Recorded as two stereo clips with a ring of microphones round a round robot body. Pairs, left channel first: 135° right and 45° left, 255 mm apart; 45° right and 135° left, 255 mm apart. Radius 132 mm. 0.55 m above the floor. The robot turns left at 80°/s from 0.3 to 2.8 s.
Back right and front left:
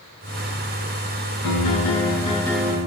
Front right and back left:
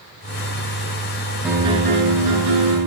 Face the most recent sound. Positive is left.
turn(degrees=115)